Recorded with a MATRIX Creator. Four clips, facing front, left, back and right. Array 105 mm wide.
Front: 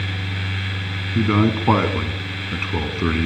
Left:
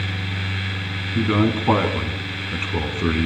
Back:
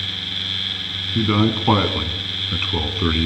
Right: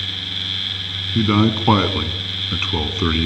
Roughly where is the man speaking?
Right.